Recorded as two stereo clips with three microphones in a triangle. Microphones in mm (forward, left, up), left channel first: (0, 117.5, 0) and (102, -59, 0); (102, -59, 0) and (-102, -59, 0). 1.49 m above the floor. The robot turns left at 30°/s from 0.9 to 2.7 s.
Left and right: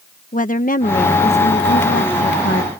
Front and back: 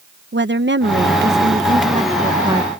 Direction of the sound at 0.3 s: 165° left.